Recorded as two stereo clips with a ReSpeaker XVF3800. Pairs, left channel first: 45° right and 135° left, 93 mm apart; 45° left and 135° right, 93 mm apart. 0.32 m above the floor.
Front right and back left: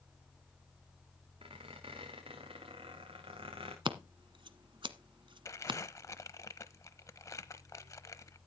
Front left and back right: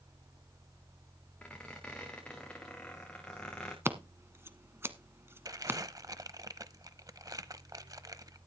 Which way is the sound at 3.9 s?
160° left.